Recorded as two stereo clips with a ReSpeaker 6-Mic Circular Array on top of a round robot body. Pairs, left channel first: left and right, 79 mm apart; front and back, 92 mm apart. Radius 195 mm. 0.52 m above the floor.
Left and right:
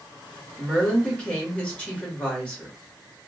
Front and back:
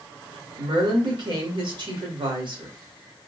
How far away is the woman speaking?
About 1.8 m.